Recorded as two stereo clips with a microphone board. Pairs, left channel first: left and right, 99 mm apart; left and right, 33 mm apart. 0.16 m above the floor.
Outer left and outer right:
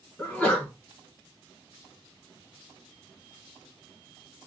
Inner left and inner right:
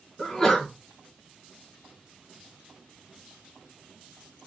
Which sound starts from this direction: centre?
A sneeze, at 0.2 s.